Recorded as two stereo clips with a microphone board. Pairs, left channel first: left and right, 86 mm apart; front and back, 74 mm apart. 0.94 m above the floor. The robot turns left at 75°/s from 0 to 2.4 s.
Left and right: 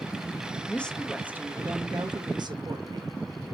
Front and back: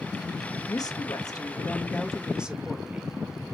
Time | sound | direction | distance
0.7 | a woman speaking | 25° left | 1.4 m